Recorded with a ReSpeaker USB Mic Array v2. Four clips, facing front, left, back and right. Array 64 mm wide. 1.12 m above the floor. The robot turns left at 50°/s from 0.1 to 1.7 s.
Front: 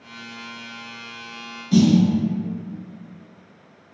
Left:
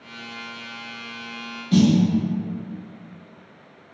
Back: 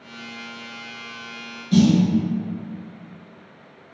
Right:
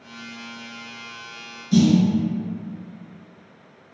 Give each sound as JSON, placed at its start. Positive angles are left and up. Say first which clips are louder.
{"t": 1.7, "sound": "a snare drum", "louder": "even, even", "azimuth_deg": 100, "distance_m": 0.9}